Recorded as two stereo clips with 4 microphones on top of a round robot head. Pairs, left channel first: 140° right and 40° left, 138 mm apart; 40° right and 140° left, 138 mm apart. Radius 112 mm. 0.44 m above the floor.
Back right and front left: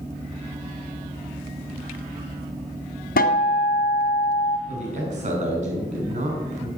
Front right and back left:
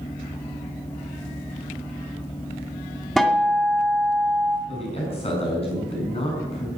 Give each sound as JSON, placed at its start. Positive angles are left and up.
{"t": 3.2, "sound": "a guitar", "azimuth_deg": -130, "distance_m": 1.9}
{"t": 4.7, "sound": "a man speaking", "azimuth_deg": 5, "distance_m": 6.0}